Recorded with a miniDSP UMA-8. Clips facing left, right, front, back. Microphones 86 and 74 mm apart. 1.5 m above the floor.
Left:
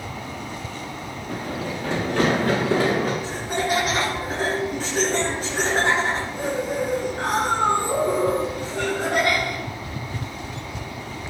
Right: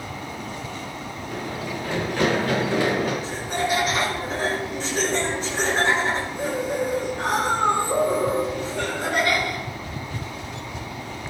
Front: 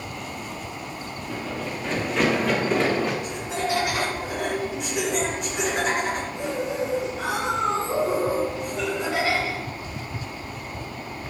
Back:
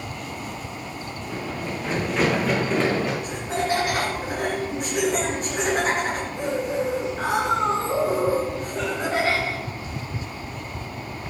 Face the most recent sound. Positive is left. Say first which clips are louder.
# left 1 dB, back 2 dB
turn(degrees=130)